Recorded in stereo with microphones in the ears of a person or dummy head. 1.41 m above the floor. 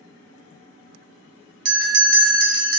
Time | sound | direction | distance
1.6 | a bell | 60° right (ahead or behind) | 0.7 m